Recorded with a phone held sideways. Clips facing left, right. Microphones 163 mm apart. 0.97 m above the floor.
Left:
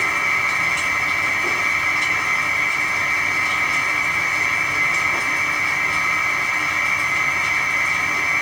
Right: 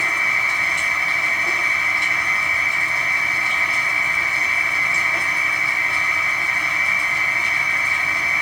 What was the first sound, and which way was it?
A machine running, 90° left.